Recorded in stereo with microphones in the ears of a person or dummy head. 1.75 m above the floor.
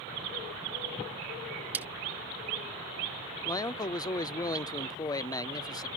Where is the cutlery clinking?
5° right (ahead or behind).